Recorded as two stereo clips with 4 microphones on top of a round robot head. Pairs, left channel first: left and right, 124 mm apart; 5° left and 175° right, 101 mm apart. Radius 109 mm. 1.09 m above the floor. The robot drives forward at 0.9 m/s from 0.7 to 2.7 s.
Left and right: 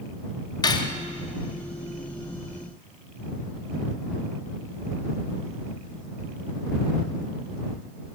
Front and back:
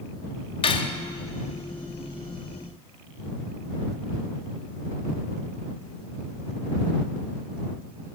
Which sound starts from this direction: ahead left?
Cutlery clinking, at 0.6 s.